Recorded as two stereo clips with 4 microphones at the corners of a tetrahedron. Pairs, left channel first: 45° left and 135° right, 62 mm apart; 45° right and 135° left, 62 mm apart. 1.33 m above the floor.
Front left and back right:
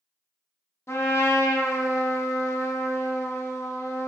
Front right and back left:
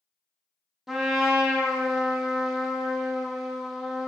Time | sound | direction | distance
0.9 | a trumpet | 55° left | 0.6 m